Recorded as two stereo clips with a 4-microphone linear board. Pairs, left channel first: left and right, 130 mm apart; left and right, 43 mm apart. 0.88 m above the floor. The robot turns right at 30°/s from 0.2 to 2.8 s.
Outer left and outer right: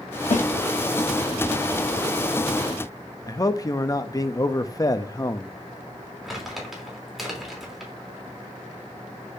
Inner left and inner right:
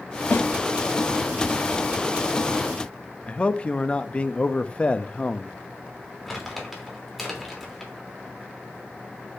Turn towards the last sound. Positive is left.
turn(degrees=0)  # may be behind; listen again after turning